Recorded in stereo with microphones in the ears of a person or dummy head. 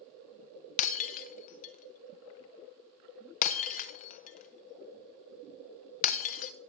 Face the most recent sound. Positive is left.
turn(degrees=40)  # may be behind; listen again after turning